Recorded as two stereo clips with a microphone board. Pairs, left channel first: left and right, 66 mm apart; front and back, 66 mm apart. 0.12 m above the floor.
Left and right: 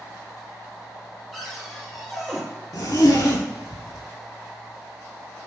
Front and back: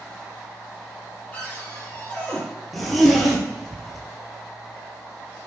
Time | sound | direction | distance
1.3 | a cupboard door | 5° left | 1.6 m
2.7 | a zipper | 90° left | 0.8 m